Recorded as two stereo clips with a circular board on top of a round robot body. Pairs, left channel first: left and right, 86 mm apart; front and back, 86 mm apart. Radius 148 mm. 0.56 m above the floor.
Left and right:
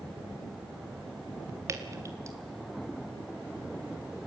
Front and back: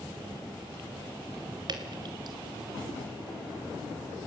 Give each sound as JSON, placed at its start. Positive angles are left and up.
{"t": 1.7, "sound": "dripping", "azimuth_deg": -145, "distance_m": 2.5}